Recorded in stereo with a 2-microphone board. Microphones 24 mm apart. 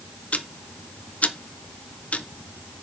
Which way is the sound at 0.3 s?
70° left (ahead or behind).